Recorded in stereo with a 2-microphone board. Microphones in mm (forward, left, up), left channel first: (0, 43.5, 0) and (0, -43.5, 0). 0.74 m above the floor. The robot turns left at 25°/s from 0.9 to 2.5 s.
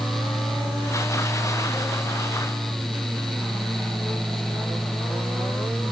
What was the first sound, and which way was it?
Only background noise.